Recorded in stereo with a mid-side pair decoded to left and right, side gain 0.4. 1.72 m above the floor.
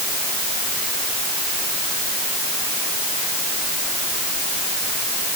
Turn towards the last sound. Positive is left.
No sound to turn to.